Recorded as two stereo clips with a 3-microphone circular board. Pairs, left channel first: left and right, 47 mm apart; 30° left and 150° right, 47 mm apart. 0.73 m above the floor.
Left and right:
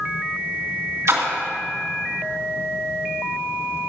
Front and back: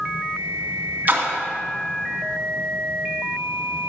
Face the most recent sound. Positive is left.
turn(degrees=-95)